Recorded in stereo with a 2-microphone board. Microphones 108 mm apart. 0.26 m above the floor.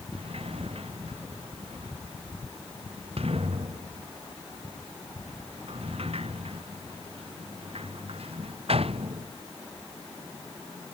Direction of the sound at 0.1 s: 65° right (ahead or behind).